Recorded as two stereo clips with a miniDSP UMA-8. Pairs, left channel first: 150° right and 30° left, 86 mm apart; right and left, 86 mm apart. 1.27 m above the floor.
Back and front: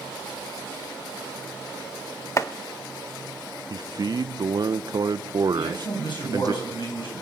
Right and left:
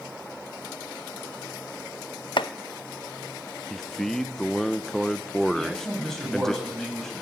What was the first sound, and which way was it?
Chopping, 100° right.